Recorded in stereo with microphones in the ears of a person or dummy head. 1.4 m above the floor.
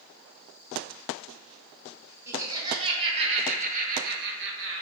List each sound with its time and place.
2.3 s laughter: 15° right (ahead or behind), 2 m; by 4.8 s 70° right (ahead or behind), 1.5 m